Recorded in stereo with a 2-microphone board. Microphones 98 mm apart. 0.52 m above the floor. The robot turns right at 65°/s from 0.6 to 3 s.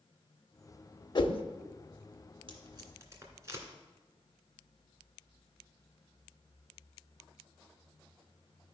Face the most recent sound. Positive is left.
turn(degrees=-30)  # may be behind; listen again after turning